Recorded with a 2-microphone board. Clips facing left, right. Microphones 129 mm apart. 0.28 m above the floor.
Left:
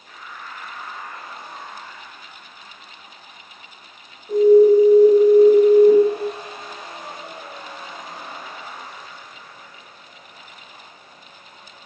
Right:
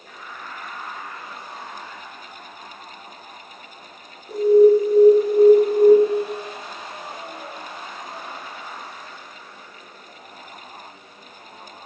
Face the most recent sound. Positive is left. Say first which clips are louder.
# left 2 dB
turn(degrees=-5)  # may be behind; listen again after turning